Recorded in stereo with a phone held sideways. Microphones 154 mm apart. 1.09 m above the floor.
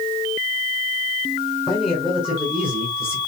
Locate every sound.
1.7 s a man speaking: 5° right (ahead or behind), 6.5 m; by 3.2 s 10° right (ahead or behind), 7 m